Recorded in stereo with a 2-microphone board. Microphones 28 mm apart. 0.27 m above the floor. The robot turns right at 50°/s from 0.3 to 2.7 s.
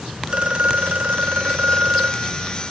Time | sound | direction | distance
0.3 | a phone ringing | 135° right | ?